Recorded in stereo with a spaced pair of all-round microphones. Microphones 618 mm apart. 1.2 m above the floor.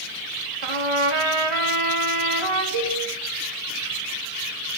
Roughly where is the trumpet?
Right.